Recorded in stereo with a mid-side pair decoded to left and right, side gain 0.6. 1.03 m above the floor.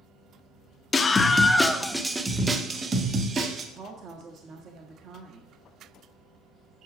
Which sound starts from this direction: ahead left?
A scream, at 0.9 s.